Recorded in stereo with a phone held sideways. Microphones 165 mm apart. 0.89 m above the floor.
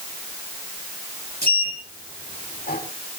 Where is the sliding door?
70° left (ahead or behind), 6 m.